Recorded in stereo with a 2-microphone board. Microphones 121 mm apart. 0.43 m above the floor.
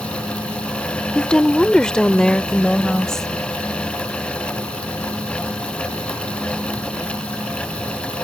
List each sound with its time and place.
1.1 s a woman speaking: 5° left (ahead or behind)